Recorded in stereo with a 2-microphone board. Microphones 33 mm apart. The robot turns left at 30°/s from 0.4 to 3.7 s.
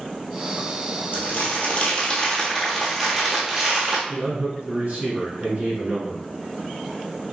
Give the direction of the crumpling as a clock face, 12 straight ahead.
10 o'clock.